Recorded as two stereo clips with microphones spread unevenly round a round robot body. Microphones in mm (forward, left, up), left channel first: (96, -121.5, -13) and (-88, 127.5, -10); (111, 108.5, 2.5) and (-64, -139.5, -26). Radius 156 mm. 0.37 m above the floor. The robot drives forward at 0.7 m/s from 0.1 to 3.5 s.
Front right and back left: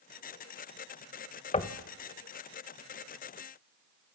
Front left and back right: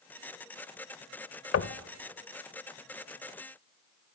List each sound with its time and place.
1.5 s knocking: 15° left, 1.0 m